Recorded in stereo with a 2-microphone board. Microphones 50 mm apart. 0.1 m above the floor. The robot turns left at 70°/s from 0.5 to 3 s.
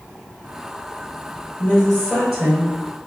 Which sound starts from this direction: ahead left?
A woman speaking, at 1.6 s.